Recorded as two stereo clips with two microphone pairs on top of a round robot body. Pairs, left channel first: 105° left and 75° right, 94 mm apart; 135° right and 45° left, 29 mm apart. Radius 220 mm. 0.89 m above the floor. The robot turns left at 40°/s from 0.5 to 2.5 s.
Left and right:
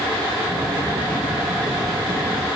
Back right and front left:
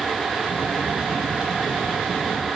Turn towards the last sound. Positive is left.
No sound to turn to.